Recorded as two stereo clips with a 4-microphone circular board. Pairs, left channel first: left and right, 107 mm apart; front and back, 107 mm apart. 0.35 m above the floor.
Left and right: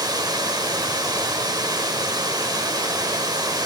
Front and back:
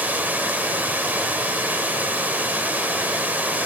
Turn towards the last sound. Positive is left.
turn(degrees=-115)